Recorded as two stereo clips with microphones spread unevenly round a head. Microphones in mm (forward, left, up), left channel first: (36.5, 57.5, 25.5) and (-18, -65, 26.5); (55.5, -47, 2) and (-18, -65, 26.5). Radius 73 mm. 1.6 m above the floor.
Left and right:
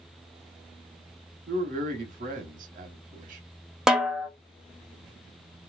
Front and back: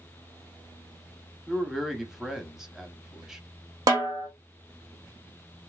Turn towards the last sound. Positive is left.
turn(degrees=160)